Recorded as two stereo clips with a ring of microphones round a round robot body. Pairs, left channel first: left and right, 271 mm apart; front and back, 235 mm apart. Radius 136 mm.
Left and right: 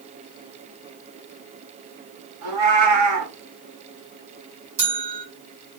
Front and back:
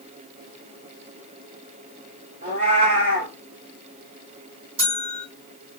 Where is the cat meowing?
115° right, 1.9 m.